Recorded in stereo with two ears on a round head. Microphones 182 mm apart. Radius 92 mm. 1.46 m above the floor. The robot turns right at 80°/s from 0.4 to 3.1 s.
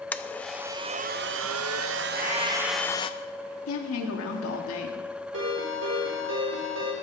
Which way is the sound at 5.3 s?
60° right (ahead or behind).